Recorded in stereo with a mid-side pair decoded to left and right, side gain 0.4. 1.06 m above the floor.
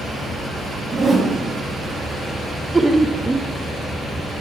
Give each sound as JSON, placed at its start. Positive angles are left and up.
{"t": 0.9, "sound": "a whoosh", "azimuth_deg": -40, "distance_m": 1.8}
{"t": 2.7, "sound": "laughter", "azimuth_deg": -15, "distance_m": 0.6}